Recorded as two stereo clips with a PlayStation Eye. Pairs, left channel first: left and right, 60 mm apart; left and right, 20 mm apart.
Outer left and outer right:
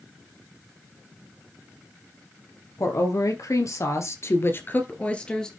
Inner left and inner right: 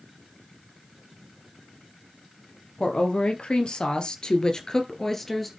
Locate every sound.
2.8 s a woman speaking: 60° left (ahead or behind), 3 m; by 5.5 s 10° left (ahead or behind), 2 m